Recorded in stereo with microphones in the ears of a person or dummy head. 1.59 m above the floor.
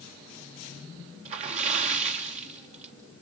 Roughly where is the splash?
Right.